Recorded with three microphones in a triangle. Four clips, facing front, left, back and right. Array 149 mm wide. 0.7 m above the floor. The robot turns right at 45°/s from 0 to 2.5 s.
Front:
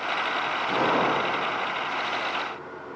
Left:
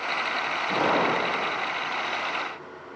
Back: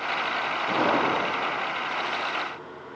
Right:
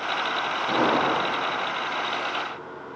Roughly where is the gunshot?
Behind right.